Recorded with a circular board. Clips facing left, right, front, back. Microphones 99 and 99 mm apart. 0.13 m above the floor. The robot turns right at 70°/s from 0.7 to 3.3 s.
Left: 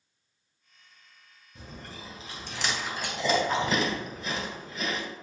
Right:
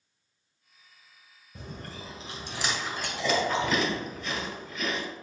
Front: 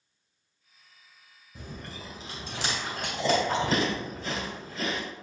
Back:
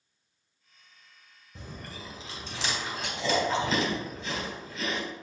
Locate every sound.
1.6 s chewing: 90° right, 1.9 m; by 5.0 s 35° left, 1.9 m